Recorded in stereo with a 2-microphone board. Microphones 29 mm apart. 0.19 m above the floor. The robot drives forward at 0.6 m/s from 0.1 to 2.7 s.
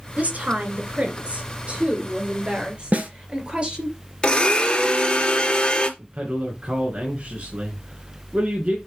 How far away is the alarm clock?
No alarm clock in this recording.